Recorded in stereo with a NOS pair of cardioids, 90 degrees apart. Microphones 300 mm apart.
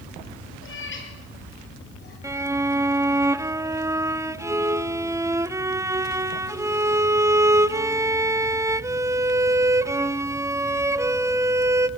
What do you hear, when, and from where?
0.6 s a cat meowing: 45° left, 6.5 m; by 2.1 s 35° left, 7.5 m
2.2 s a violin: 10° right, 0.7 m